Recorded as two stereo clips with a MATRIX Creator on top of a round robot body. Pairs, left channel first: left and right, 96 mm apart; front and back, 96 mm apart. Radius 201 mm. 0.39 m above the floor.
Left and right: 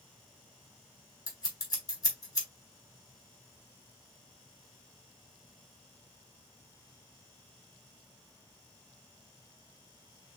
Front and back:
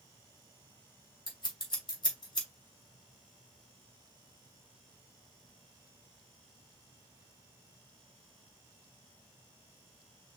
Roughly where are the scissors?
Ahead left.